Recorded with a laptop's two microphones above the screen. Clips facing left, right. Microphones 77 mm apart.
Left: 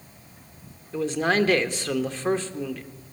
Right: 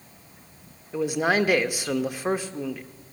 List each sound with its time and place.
0.9 s a man speaking: 10° right (ahead or behind), 0.8 m